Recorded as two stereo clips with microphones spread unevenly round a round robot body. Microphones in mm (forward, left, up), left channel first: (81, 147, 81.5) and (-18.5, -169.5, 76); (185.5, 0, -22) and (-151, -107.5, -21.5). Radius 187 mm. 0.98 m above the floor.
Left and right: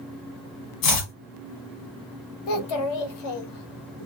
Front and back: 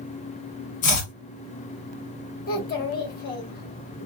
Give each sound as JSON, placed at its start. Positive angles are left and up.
{"t": 0.8, "sound": "chopping", "azimuth_deg": 70, "distance_m": 1.3}
{"t": 2.5, "sound": "a child speaking", "azimuth_deg": 85, "distance_m": 1.0}